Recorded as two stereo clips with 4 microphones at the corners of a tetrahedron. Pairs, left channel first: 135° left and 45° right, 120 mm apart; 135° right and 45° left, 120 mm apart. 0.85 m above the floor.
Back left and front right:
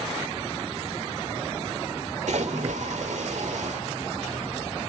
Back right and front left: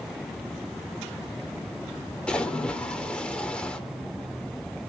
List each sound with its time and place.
2.3 s a splash: 55° right, 1.9 m